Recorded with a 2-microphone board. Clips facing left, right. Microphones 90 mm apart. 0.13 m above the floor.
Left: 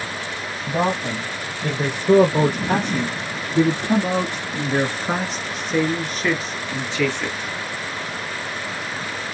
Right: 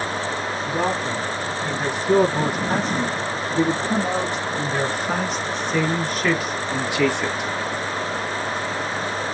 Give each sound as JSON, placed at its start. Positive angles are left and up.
{"t": 0.7, "sound": "a man speaking", "side_deg": 55, "distance_m": 4.0}